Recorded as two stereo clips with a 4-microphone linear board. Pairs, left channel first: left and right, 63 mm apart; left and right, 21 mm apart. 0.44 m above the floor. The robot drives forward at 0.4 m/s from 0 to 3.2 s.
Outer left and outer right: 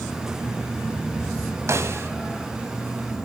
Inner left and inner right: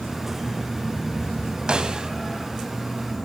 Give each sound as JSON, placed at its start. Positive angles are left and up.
{"t": 1.7, "sound": "a snare drum", "side_deg": -50, "distance_m": 1.1}